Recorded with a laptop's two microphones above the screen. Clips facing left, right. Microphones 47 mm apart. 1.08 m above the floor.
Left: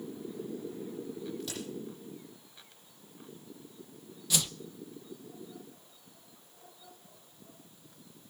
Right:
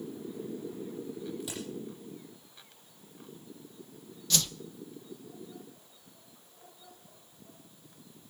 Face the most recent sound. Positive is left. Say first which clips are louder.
# right 1 dB
turn(degrees=15)  # may be behind; listen again after turning